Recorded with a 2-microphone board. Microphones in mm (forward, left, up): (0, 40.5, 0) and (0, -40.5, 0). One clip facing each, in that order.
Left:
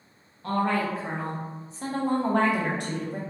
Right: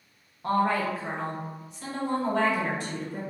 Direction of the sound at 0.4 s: 20° right (ahead or behind).